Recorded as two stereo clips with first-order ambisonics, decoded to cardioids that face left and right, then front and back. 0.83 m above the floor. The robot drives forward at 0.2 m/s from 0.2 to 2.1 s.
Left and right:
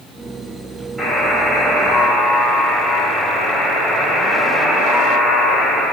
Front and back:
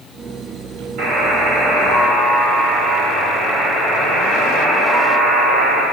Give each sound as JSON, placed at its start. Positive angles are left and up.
{"t": 1.0, "sound": "a buzzer", "azimuth_deg": -170, "distance_m": 2.5}